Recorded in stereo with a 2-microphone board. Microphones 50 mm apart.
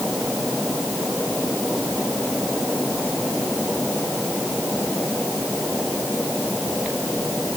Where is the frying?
No frying in this recording.